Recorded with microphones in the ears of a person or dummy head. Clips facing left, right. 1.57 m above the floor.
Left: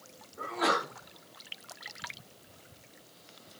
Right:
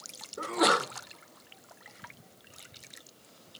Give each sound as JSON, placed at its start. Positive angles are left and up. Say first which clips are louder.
{"t": 0.4, "sound": "a sneeze", "louder": "right 4 dB", "side_deg": -60, "distance_m": 0.9}